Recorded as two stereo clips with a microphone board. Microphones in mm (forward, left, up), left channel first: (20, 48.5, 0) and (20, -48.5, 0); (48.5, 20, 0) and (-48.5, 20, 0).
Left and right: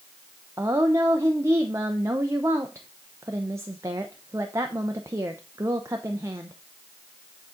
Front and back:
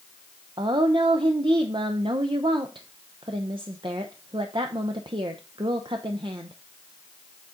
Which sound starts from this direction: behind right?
A woman speaking, at 0.6 s.